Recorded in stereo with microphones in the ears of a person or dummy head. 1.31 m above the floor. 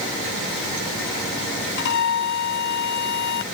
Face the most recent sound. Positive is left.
turn(degrees=60)  # may be behind; listen again after turning